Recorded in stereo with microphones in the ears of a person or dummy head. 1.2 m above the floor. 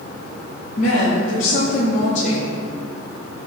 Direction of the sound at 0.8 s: 50° left (ahead or behind).